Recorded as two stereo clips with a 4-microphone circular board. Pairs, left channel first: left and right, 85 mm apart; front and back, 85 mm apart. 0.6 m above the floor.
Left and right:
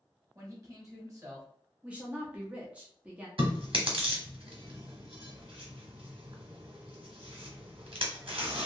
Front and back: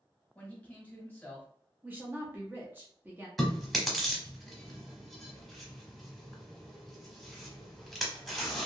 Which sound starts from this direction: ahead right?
A man speaking, at 0.3 s.